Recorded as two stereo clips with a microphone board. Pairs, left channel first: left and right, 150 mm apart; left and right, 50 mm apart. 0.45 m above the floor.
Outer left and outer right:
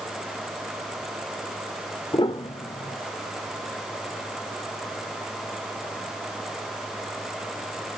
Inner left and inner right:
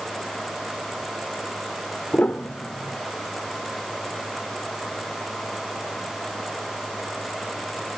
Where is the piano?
35° left (ahead or behind), 1.2 m.